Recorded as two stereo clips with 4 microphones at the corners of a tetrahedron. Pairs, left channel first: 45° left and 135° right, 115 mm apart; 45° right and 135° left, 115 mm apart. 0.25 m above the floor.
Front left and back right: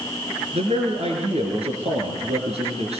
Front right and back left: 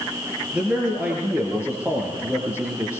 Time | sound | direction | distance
0.5 | a man speaking | 145° right | 4.5 m